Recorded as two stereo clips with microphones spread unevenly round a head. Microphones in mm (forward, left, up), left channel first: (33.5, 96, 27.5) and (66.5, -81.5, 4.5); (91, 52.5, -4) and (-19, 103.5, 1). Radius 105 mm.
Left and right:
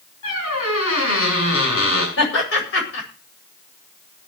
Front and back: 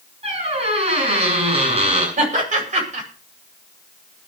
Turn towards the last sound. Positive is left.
turn(degrees=140)